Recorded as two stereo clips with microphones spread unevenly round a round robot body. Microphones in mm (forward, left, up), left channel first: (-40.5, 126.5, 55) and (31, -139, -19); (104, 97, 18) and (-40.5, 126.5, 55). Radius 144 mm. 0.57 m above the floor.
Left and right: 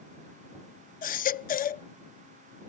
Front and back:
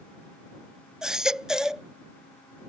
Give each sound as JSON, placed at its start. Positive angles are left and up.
{"t": 1.0, "sound": "a baby crying", "azimuth_deg": 55}